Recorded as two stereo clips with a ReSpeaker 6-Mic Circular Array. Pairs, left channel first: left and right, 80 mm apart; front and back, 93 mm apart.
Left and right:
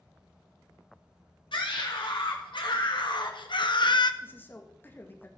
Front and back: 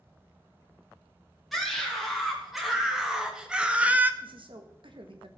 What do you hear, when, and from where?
1.5 s a scream: 90° left, 2.5 m; by 4.1 s 110° left, 0.7 m
4.2 s a man speaking: 155° left, 1.6 m